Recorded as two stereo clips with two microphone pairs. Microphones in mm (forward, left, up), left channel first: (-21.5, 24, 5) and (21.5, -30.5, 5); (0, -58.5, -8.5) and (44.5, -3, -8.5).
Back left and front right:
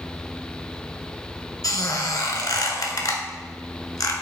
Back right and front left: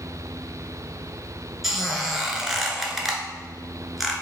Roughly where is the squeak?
Behind left.